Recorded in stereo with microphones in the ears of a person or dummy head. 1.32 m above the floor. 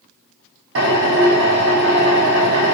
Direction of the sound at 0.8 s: 75° right (ahead or behind).